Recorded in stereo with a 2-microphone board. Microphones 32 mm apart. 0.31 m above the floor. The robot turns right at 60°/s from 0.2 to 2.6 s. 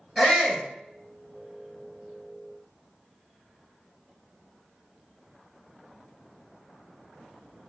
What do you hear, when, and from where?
0.2 s a shout: 25° left (ahead or behind), 1.6 m; by 0.7 s 30° left (ahead or behind), 1.6 m